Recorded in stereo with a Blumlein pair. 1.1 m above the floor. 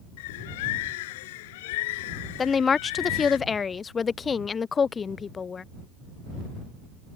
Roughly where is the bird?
Ahead left.